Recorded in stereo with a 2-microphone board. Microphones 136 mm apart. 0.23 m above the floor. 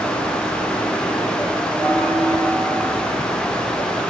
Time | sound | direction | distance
1.8 | a bell | 10° left (ahead or behind) | 8.5 m